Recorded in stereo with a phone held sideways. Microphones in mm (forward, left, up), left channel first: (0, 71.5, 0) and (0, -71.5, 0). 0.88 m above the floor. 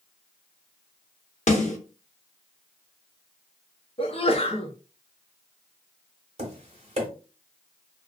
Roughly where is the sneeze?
Left.